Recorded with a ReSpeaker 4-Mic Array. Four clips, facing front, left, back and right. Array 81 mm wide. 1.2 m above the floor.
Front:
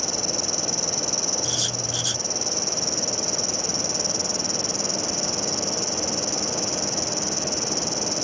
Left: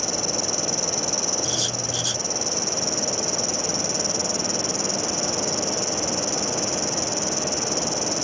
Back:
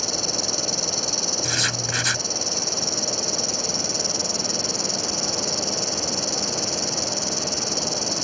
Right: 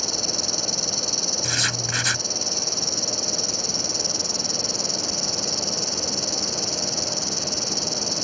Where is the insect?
145° right.